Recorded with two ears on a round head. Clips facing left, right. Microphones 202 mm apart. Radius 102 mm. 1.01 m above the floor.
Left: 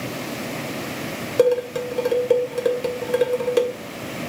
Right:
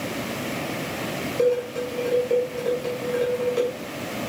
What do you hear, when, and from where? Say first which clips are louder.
1.4 s dishes clattering: left 4 dB; 65° left (ahead or behind), 2.5 m